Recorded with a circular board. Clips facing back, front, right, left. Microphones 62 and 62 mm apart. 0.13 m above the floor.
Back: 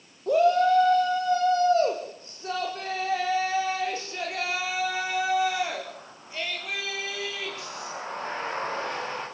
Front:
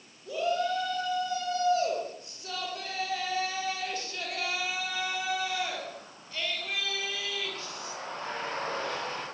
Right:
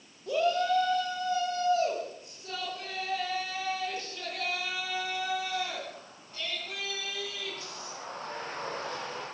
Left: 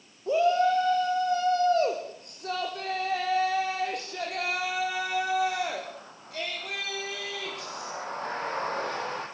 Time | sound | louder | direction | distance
0.3 | a shout | back 9 dB, left 4 dB | 150° left | 4.5 m